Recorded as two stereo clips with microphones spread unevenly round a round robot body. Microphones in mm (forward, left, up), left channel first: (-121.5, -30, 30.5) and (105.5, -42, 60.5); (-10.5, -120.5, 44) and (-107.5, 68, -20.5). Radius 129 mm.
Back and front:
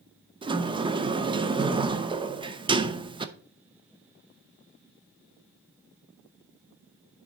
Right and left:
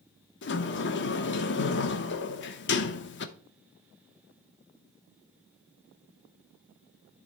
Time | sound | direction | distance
0.4 | a sliding door | 70° right | 0.8 m